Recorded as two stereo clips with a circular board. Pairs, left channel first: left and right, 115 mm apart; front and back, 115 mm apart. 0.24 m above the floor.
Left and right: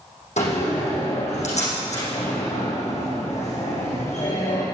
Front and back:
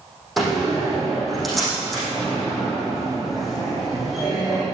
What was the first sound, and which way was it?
A door slam, 90° left.